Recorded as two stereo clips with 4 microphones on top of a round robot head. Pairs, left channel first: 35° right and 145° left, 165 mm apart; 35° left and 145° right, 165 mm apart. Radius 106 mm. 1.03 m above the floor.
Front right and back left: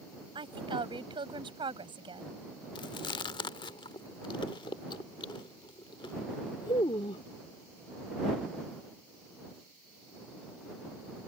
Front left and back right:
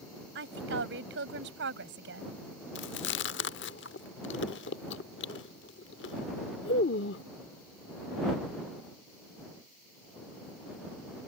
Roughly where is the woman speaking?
Behind right.